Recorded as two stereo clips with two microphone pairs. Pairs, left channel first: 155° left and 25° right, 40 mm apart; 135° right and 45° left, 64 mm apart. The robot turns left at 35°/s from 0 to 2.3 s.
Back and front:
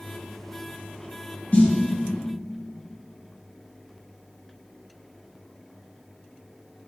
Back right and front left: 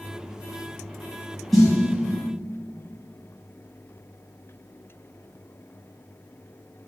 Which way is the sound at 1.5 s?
135° left.